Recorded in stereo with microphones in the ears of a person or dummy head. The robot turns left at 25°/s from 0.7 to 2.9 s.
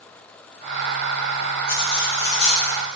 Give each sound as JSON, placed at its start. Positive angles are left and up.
{"t": 1.7, "sound": "cutlery clinking", "side_deg": 70, "distance_m": 4.0}